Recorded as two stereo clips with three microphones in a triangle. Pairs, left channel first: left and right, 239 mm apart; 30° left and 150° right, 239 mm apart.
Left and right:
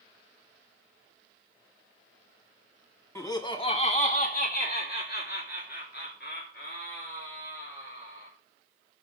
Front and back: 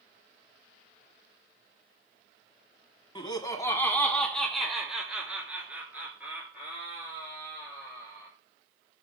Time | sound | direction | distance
3.1 | laughter | 40° left | 1.4 m